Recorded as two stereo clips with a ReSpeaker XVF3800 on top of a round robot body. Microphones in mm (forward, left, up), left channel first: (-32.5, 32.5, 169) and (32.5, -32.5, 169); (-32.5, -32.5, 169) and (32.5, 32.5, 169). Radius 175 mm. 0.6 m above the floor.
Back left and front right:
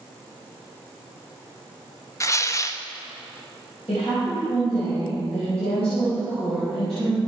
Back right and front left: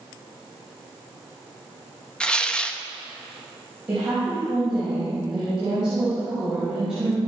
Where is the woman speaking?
130° left, 5.5 m.